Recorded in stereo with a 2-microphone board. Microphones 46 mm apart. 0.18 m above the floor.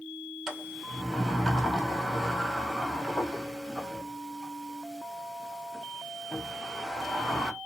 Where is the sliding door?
5° right (ahead or behind), 1.0 m.